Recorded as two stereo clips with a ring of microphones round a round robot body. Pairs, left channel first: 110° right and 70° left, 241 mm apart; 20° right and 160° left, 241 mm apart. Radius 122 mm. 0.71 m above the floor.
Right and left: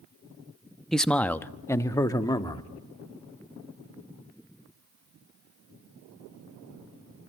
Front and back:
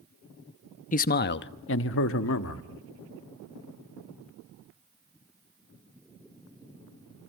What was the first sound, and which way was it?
A man speaking, 25° right.